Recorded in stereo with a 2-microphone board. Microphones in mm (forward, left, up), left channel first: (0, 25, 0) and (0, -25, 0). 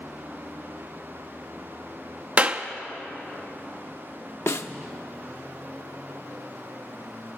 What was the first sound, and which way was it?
A clap, 25° right (ahead or behind).